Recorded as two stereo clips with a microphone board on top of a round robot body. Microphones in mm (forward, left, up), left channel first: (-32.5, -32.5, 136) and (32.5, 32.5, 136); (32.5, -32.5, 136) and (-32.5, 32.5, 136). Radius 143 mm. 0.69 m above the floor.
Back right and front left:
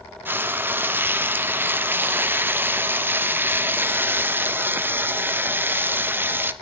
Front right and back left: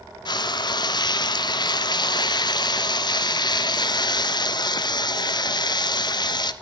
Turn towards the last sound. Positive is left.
turn(degrees=-20)